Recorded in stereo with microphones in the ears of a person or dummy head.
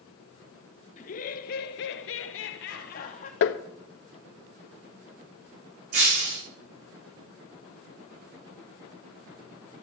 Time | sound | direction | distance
1.0 | laughter | 40° left (ahead or behind) | 1.3 m
3.4 | tapping | 65° left (ahead or behind) | 1.0 m
5.9 | breaking glass | 50° right (ahead or behind) | 8.5 m